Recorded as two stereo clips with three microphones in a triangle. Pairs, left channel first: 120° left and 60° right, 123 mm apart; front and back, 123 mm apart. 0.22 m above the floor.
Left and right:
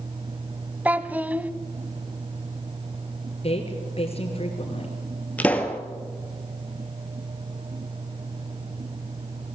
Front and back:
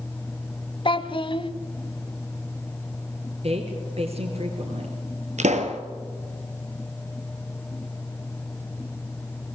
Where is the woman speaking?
150° left, 5 m.